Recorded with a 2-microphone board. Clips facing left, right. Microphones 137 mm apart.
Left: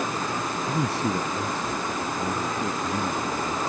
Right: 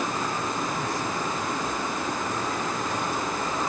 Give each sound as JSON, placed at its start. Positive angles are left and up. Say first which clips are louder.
{"t": 0.7, "sound": "a man speaking", "louder": "left 3 dB", "side_deg": 70}